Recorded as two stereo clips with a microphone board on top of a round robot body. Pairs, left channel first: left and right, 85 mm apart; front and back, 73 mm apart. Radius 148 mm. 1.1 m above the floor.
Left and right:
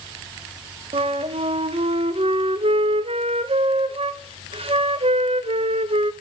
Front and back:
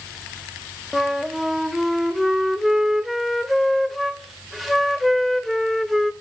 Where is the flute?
90° right, 1.2 m.